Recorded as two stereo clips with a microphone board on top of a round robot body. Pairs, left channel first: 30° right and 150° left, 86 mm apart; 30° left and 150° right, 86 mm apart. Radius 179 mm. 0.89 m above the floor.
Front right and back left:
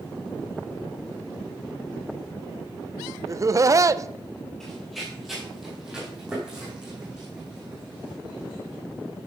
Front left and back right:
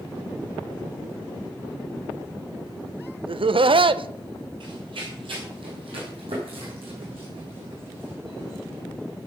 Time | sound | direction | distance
3.3 | laughter | 160° right | 0.7 m
4.6 | running footsteps | 115° right | 1.7 m